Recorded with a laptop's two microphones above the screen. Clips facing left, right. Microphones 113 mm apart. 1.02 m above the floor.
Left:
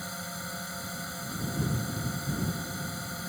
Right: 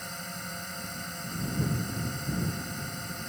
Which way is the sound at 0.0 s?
5° left (ahead or behind).